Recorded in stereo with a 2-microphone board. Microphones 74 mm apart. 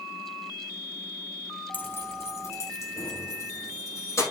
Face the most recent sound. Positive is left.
turn(degrees=40)  # may be behind; listen again after turning